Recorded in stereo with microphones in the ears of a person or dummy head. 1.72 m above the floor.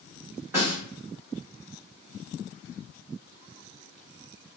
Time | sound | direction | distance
0.5 | a snare drum | 20° right (ahead or behind) | 1.4 m